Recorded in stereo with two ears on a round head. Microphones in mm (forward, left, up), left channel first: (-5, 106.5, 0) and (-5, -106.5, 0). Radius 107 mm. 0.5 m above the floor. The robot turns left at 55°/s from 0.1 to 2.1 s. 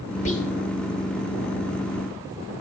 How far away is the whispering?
About 1.4 m.